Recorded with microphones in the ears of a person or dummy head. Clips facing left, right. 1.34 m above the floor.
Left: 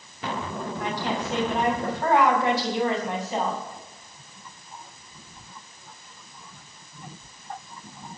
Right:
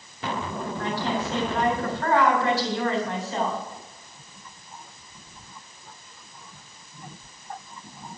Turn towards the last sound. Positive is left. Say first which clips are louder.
# right 1 dB
turn(degrees=15)  # may be behind; listen again after turning